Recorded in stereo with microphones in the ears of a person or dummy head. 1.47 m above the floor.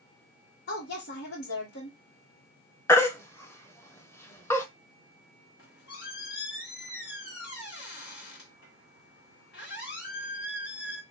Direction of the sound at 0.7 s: 60° left (ahead or behind).